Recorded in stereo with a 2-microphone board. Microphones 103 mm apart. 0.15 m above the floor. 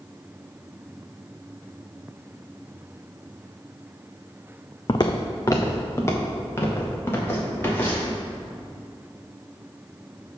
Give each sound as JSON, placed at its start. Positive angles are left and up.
{"t": 4.9, "sound": "footsteps", "side_deg": 45, "distance_m": 0.7}